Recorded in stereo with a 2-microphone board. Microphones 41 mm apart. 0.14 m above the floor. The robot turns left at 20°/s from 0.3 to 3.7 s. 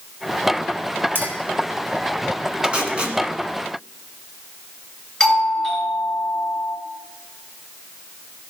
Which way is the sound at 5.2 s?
Centre (ahead or behind).